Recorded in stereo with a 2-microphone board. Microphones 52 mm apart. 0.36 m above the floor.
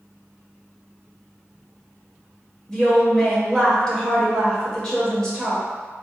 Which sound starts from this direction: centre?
A woman speaking, at 2.7 s.